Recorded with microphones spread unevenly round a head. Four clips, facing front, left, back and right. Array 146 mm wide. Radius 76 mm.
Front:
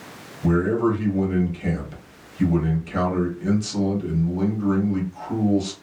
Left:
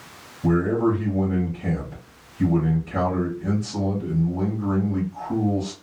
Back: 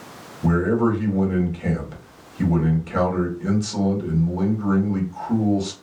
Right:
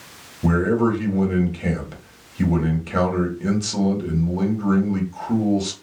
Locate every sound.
0.4 s a man speaking: 85° right, 1.5 m